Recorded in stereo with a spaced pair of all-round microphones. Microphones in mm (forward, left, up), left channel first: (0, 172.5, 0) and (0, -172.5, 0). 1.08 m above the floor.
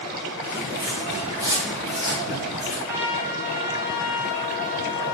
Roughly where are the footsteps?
Centre.